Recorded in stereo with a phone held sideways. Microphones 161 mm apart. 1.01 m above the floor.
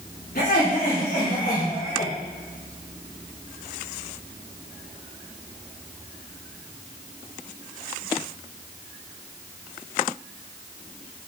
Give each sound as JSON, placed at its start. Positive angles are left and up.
{"t": 0.3, "sound": "laughter", "side_deg": 80, "distance_m": 3.0}